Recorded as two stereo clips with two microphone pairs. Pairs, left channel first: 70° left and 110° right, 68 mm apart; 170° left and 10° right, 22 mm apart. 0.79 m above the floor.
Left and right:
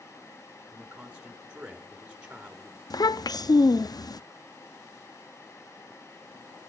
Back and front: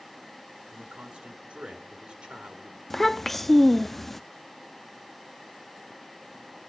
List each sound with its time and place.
0.7 s a man speaking: 35° right, 2 m
2.9 s a child speaking: 85° left, 0.5 m